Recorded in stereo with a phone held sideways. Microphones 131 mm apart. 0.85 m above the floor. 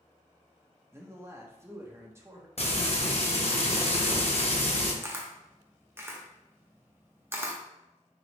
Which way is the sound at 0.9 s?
20° right (ahead or behind).